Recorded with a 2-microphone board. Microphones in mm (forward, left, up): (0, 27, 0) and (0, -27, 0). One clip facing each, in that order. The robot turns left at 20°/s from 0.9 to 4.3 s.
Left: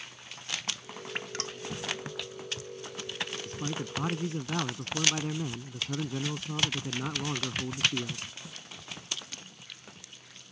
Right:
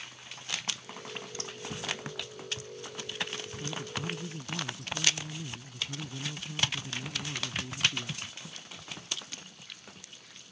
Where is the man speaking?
55° left (ahead or behind); by 8.2 s 75° left (ahead or behind).